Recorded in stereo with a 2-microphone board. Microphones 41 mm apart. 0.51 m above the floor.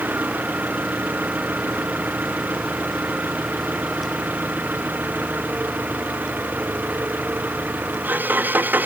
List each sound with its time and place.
0.0 s an engine running: 50° right (ahead or behind)